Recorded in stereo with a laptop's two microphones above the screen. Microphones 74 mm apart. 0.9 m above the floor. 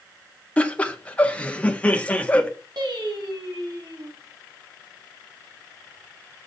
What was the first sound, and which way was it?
Laughter, 20° left (ahead or behind).